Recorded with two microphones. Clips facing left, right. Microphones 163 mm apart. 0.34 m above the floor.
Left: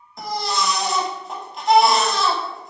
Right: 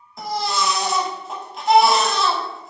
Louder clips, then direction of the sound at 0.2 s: Right 1 dB; centre (ahead or behind).